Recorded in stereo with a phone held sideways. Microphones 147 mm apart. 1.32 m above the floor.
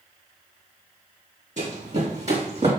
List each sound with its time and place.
1.6 s running footsteps: 55° right (ahead or behind), 3 m; by 2.7 s 45° right (ahead or behind), 2.5 m